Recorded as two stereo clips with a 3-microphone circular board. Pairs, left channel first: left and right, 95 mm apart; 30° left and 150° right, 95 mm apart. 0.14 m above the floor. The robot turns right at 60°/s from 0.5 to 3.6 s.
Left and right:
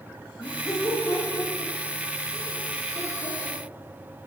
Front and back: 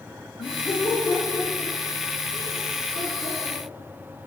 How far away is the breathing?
I don't hear breathing.